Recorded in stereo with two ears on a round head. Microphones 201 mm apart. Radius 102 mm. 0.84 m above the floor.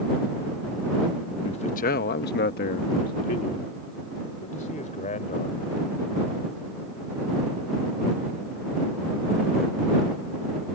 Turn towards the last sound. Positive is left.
turn(degrees=35)  # may be behind; listen again after turning